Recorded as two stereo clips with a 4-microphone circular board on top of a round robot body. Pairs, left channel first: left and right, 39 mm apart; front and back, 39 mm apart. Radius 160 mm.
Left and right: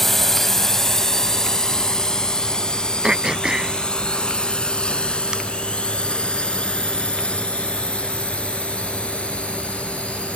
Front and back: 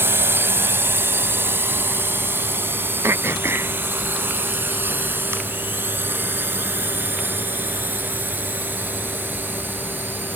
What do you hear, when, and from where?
0.0 s a drone: 170° left; by 10.4 s 145° left
3.0 s throat clearing: 160° right